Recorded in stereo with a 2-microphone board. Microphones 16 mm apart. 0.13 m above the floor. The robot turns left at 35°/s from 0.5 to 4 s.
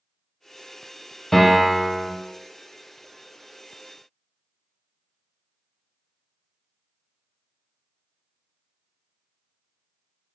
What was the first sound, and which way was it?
A piano, 20° left (ahead or behind).